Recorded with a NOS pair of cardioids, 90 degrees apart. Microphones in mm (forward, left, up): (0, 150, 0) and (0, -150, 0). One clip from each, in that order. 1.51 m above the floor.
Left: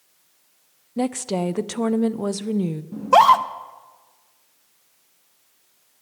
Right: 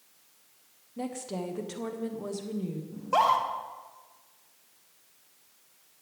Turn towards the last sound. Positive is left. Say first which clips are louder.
# left 11 dB
turn(degrees=55)